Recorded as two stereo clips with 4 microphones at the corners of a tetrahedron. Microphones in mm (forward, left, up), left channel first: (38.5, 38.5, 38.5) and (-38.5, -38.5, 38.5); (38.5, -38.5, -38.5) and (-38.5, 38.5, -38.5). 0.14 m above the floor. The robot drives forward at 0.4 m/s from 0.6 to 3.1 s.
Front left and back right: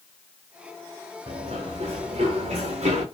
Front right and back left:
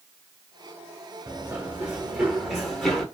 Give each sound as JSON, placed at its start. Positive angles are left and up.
{"t": 1.3, "sound": "running footsteps", "azimuth_deg": -155, "distance_m": 1.8}